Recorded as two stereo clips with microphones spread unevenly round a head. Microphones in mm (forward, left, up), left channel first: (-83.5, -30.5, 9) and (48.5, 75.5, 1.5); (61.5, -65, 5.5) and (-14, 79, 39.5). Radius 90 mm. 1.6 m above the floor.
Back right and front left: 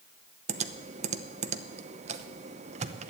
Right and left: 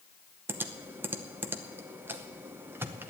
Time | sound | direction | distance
0.5 | typing on a keyboard | 65° left | 0.7 m